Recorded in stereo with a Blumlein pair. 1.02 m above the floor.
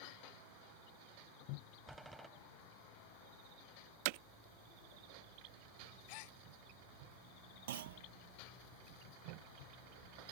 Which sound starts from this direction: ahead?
A door slam, at 1.9 s.